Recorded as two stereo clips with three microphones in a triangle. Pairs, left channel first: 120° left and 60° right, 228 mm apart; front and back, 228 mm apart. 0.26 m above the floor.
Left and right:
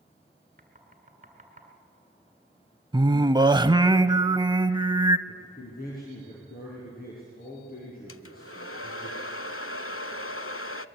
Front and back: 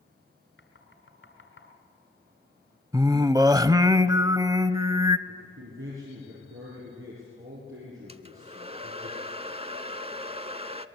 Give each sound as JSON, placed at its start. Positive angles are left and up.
{"t": 0.6, "sound": "knocking", "azimuth_deg": -10, "distance_m": 2.5}
{"t": 2.9, "sound": "singing", "azimuth_deg": -115, "distance_m": 0.6}
{"t": 5.3, "sound": "a man speaking", "azimuth_deg": 165, "distance_m": 5.5}
{"t": 8.1, "sound": "a hair dryer", "azimuth_deg": 120, "distance_m": 0.6}